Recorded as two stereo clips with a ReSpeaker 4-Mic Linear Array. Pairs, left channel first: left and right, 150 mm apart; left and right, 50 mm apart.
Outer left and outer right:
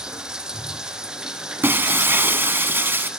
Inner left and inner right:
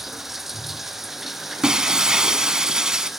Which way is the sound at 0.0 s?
5° right (ahead or behind).